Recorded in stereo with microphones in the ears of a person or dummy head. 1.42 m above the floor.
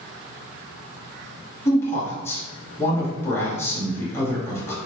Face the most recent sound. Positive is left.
turn(degrees=15)  # may be behind; listen again after turning